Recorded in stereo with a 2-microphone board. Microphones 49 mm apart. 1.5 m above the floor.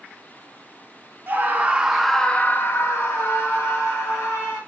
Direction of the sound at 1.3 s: 45° right (ahead or behind).